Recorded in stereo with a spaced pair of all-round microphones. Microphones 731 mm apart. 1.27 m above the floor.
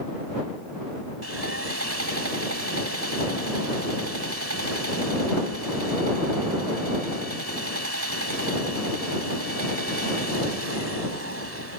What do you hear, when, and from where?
1.2 s sawing: 20° right (ahead or behind)